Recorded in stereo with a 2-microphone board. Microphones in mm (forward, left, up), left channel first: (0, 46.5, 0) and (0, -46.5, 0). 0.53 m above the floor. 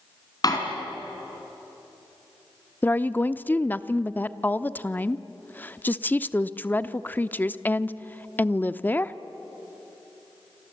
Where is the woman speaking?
20° left (ahead or behind), 0.7 m.